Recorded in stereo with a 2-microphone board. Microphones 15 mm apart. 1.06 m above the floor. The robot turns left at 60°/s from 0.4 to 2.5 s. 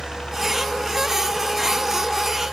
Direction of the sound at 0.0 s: 70° left (ahead or behind).